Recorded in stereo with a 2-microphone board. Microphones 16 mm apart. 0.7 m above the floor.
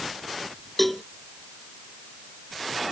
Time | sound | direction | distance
0.8 | a cowbell | 10° left (ahead or behind) | ?